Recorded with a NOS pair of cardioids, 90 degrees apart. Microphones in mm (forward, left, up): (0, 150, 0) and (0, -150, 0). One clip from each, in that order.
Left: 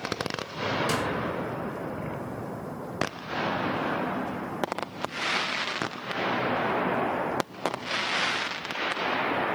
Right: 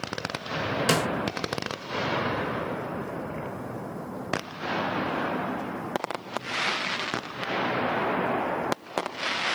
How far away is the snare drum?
About 1.0 m.